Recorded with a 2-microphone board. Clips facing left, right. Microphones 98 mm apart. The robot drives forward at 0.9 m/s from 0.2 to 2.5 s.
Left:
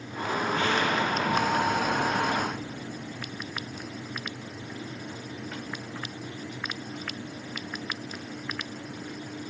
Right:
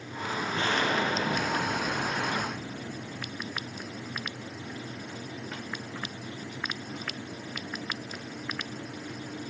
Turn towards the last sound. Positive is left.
turn(degrees=-60)  # may be behind; listen again after turning